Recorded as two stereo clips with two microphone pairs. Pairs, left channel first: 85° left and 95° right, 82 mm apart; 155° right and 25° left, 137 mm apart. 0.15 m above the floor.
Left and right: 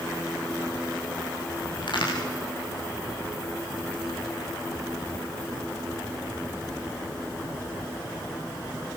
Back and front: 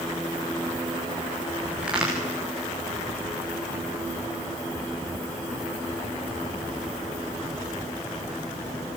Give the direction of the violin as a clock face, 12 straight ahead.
I don't hear a violin.